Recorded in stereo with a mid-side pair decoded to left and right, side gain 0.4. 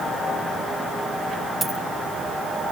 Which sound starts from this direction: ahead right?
A dropped coin, at 1.6 s.